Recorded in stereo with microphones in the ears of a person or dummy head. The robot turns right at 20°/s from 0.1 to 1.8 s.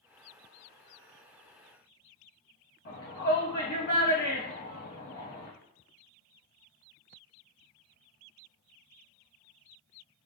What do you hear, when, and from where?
2.9 s a shout: 55° left (ahead or behind), 1.4 m